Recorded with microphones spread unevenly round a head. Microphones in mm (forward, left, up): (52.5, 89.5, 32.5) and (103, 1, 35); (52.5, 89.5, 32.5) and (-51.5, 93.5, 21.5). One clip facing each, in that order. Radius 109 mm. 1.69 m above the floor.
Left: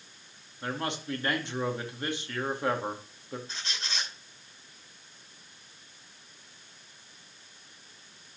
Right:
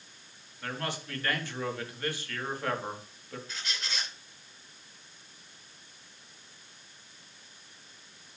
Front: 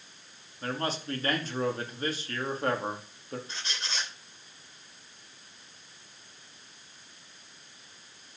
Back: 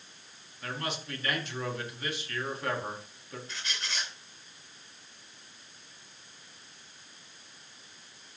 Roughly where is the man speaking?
Ahead left.